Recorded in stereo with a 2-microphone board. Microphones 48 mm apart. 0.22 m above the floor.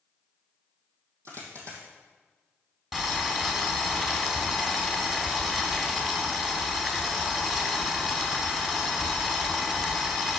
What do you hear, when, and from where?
1.2 s a dropped coin: 75° right (ahead or behind), 3 m
2.9 s boiling: 10° right (ahead or behind), 2.5 m